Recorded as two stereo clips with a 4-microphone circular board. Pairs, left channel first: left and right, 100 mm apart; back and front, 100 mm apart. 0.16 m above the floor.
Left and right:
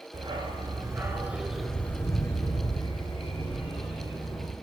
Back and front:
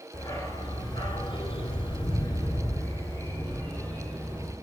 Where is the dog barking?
120° right, 1.0 m; by 4.5 s 105° left, 1.8 m.